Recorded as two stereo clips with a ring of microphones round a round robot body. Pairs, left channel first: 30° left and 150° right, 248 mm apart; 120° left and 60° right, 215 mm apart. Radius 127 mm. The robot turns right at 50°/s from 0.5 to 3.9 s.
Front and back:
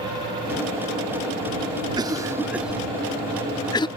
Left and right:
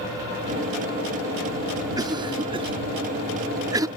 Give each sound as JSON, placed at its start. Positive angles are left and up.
{"t": 2.0, "sound": "a cough", "azimuth_deg": -105}